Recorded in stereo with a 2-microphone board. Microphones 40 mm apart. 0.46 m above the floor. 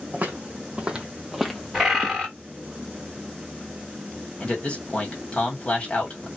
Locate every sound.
0.1 s footsteps: 35° right (ahead or behind), 1.0 m; by 2.3 s 40° left (ahead or behind), 0.6 m
1.7 s a bird: 10° right (ahead or behind), 1.3 m
4.4 s a man speaking: 35° left (ahead or behind), 1.3 m